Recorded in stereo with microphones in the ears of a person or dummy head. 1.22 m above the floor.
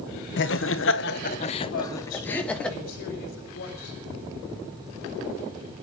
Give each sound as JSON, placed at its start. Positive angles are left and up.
{"t": 0.4, "sound": "laughter", "side_deg": 55, "distance_m": 1.1}
{"t": 1.7, "sound": "a woman speaking", "side_deg": 60, "distance_m": 5.0}